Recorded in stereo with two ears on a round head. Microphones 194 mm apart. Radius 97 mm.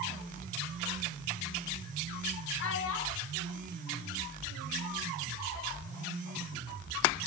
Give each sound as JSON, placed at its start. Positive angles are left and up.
{"t": 2.6, "sound": "a child speaking", "side_deg": 55, "distance_m": 1.0}